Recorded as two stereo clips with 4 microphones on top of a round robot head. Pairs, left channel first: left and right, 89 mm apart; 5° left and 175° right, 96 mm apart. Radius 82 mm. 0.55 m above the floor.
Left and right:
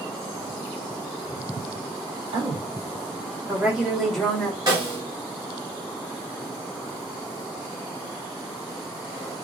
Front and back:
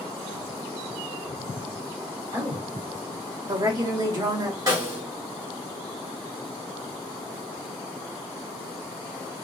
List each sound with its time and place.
2.3 s a woman speaking: 125° right, 1.8 m; by 4.6 s 155° left, 1.3 m
4.7 s a snare drum: 130° right, 1.9 m